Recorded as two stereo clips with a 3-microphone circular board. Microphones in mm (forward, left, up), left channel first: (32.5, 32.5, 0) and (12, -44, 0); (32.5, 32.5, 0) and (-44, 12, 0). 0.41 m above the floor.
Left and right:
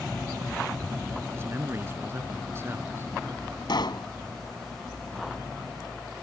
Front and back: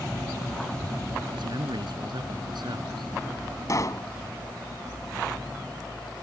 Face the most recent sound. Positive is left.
turn(degrees=60)